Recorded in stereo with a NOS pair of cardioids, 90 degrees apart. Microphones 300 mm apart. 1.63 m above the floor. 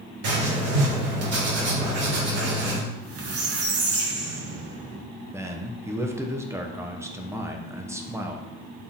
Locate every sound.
0.2 s writing: 55° right, 3 m
2.9 s a squeak: 55° right, 1.6 m
5.3 s a man speaking: 10° right, 1.1 m